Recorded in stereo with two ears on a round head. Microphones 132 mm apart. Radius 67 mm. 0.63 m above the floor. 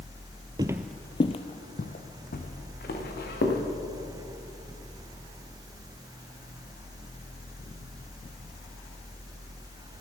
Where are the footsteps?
30° right (ahead or behind), 0.6 m; by 3.6 s 70° left (ahead or behind), 3.5 m.